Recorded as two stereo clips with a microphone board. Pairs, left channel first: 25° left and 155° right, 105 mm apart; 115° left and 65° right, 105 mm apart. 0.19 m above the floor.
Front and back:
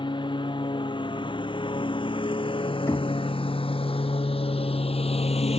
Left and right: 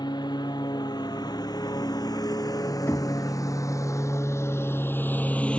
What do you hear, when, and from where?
0.0 s a lawn mower: 65° left; by 5.6 s 30° left
2.9 s knocking: 65° left